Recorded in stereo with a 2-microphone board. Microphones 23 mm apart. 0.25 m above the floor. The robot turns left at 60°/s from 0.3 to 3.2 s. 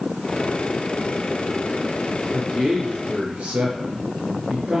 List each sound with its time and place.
2.3 s a man speaking: 25° right, 3.5 m; by 4.8 s 80° right, 3.5 m